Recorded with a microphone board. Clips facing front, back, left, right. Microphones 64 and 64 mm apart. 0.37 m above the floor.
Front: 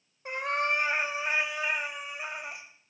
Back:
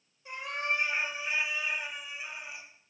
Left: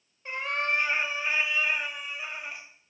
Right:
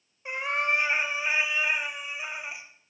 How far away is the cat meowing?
About 1.0 m.